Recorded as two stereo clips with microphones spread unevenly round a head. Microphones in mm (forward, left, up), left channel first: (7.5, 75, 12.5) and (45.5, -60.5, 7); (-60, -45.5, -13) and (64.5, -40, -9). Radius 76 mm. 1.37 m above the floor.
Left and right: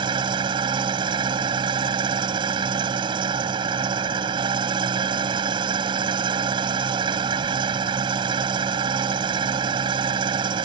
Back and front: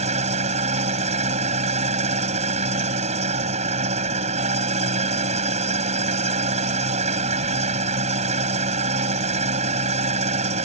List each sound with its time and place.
0.0 s an engine running: 20° right